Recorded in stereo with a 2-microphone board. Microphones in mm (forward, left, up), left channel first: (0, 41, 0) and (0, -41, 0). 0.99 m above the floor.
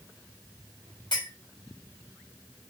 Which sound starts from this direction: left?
A clink, at 1.1 s.